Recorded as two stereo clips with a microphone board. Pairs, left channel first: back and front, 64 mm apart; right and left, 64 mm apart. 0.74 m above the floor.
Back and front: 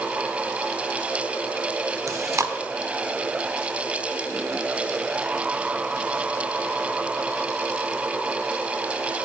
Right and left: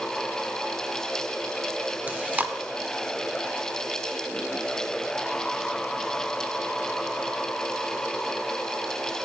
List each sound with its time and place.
2.1 s chewing: 30° left, 0.5 m